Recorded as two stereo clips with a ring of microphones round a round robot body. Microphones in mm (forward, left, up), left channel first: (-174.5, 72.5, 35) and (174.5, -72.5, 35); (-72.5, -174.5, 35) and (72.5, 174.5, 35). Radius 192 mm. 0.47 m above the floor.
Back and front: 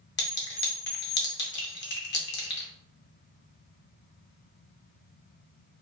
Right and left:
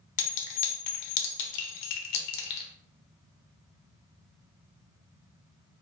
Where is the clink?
140° right, 0.6 m.